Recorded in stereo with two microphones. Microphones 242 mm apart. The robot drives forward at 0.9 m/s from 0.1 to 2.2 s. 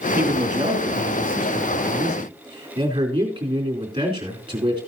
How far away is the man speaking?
About 2 m.